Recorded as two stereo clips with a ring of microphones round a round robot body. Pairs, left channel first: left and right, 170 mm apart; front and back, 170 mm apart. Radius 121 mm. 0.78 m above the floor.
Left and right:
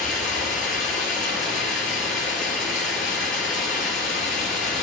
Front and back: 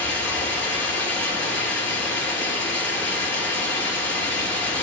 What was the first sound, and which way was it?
Running water, 80° left.